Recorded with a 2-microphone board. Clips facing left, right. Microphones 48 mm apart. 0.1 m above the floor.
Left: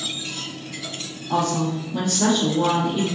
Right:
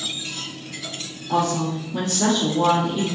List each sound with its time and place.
1.3 s a woman speaking: 20° right (ahead or behind), 1.6 m; by 3.0 s 5° left (ahead or behind), 1.7 m